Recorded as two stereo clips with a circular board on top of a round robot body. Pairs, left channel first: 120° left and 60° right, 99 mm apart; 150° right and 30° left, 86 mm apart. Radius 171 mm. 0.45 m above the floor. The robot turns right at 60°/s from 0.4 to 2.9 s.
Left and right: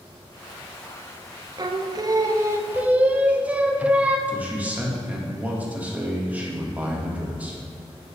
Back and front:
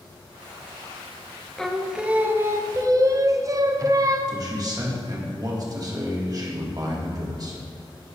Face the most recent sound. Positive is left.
turn(degrees=10)